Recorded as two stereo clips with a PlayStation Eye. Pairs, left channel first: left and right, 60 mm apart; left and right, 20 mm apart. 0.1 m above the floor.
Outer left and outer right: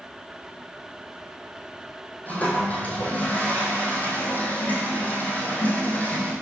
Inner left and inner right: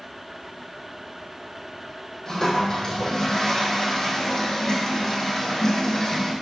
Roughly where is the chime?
No chime in this recording.